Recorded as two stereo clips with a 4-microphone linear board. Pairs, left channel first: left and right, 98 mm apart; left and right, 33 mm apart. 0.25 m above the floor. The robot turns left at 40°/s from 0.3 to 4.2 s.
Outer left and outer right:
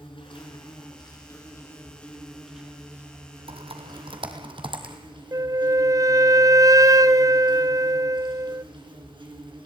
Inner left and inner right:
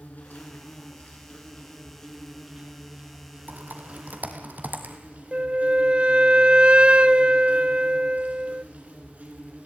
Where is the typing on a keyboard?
85° right, 1.8 m; by 5.0 s 65° right (ahead or behind), 1.8 m.